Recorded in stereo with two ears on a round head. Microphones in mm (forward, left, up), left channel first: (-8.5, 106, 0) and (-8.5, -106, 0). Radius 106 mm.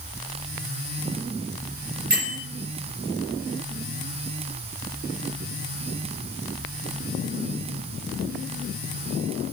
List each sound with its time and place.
2.1 s a bell: 40° right (ahead or behind), 3.5 m